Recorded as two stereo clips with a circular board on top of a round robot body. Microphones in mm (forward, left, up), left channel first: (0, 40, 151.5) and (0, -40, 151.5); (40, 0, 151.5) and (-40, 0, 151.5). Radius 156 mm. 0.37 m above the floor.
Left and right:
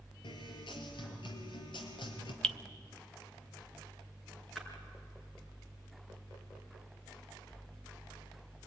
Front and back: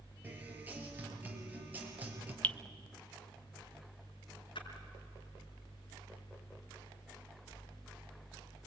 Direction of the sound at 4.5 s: 5° left.